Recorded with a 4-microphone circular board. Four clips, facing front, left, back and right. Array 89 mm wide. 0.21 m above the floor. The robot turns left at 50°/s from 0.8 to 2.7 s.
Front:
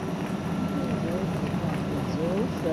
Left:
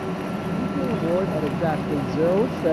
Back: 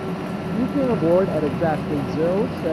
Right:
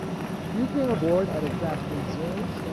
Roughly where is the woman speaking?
Behind.